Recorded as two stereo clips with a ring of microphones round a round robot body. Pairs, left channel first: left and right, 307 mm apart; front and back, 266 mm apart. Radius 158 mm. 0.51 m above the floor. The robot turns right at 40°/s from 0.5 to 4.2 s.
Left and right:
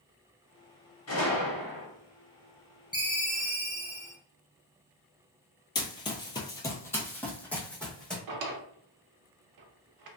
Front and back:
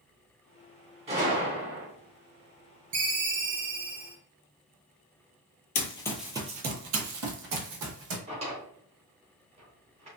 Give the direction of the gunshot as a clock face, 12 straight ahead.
8 o'clock.